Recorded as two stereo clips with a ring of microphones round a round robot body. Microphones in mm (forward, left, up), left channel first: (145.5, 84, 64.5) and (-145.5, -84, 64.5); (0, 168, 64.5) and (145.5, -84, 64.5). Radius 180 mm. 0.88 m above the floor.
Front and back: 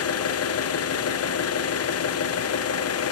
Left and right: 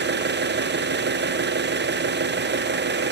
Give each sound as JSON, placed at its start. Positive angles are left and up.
{"t": 0.0, "sound": "an engine running", "azimuth_deg": -10, "distance_m": 0.7}